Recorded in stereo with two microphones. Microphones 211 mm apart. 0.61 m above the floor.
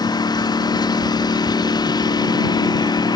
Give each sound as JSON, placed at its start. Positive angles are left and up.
{"t": 0.0, "sound": "a lawn mower", "side_deg": 20}